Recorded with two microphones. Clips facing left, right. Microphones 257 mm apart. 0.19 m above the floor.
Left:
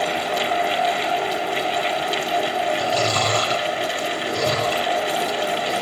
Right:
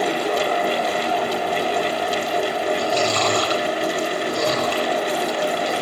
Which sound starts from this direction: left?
Chewing, at 2.8 s.